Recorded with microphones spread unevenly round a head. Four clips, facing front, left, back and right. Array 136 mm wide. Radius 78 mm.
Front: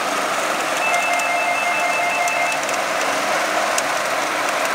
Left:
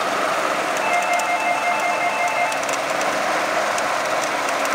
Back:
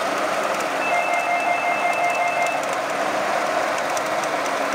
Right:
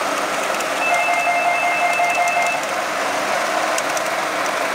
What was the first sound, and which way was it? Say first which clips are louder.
A doorbell: right 3 dB, even; 95° right.